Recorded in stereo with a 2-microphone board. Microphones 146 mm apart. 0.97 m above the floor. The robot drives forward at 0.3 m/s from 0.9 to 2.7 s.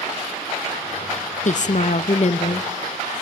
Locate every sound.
1.4 s a woman speaking: 60° left (ahead or behind), 0.6 m; by 3.1 s 45° left (ahead or behind), 0.7 m